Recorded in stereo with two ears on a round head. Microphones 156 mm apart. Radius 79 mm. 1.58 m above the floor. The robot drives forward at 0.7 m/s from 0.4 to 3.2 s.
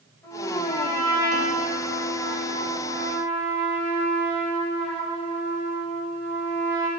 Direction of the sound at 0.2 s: 15° left (ahead or behind).